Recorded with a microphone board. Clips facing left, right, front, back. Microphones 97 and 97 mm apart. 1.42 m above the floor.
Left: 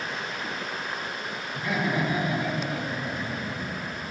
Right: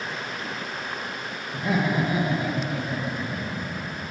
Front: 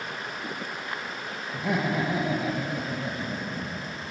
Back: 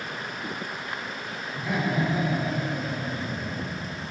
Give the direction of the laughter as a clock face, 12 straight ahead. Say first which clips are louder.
Right 3 dB, even; 1 o'clock.